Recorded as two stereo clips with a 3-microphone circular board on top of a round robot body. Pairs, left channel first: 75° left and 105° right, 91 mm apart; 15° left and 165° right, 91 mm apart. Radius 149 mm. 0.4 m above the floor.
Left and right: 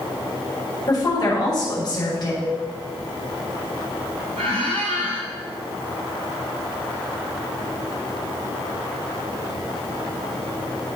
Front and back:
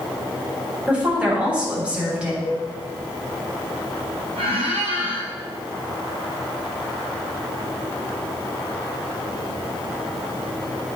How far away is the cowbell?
About 3.5 m.